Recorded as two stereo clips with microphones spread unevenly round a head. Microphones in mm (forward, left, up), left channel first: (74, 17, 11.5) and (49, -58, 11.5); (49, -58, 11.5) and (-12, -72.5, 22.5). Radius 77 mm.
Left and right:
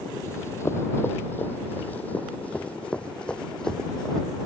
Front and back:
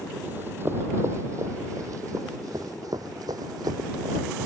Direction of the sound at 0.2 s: 135° left.